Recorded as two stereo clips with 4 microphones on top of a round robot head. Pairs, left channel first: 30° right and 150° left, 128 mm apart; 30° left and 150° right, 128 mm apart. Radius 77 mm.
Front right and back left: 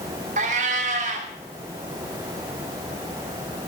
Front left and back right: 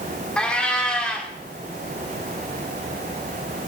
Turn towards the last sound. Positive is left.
turn(degrees=115)